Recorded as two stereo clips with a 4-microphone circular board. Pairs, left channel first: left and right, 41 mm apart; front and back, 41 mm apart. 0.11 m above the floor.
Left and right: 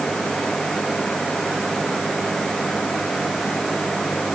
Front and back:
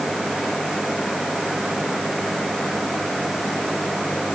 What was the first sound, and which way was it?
Only background noise.